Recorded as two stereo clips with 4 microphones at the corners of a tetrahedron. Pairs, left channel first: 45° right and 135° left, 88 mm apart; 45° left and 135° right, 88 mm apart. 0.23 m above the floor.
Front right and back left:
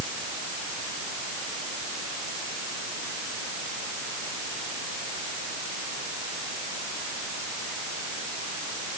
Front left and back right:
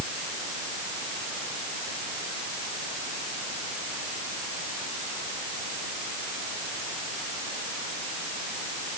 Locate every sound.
Only background noise.